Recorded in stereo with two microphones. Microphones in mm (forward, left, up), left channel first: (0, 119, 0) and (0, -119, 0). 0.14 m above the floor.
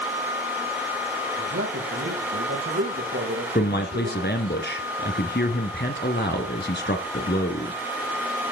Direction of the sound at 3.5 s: 45° left (ahead or behind).